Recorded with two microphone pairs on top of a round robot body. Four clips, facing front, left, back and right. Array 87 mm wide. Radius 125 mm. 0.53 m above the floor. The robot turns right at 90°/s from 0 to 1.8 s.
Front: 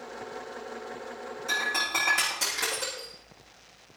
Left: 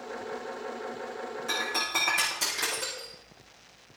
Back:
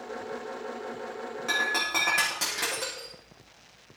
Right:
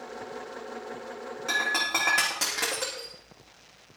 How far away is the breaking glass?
About 8.5 m.